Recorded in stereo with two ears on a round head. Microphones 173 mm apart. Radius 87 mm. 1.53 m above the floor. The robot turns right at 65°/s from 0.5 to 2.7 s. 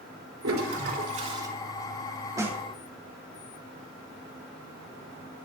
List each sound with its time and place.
0.4 s a toilet flushing: 80° right, 4 m; by 1.5 s 15° right, 4 m
2.4 s a snare drum: 20° right (ahead or behind), 2.5 m; by 2.6 s 5° right (ahead or behind), 2.5 m